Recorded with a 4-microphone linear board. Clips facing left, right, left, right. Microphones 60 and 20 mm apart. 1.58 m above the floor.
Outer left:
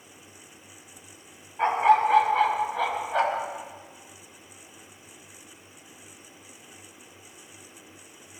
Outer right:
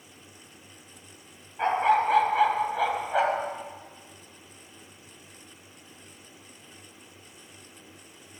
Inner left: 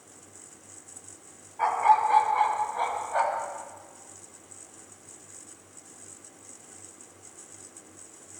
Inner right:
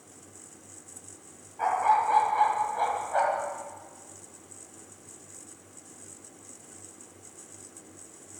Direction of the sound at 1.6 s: 5° left (ahead or behind).